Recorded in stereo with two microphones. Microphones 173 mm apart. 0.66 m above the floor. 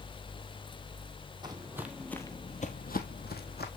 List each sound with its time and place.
1.4 s footsteps: 25° right (ahead or behind), 1.3 m; by 3.7 s 70° left (ahead or behind), 1.8 m